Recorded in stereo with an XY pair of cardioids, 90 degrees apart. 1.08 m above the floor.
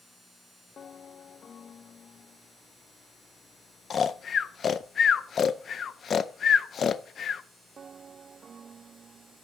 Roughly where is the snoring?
Ahead left.